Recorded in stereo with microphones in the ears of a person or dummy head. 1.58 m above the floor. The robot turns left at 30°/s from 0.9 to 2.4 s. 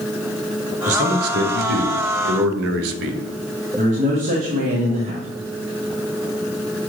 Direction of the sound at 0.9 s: 45° right.